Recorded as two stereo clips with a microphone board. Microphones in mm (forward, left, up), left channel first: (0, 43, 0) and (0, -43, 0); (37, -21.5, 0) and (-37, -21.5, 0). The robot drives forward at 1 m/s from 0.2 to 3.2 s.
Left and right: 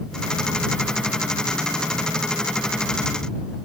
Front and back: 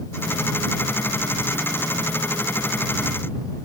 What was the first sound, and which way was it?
Only background noise.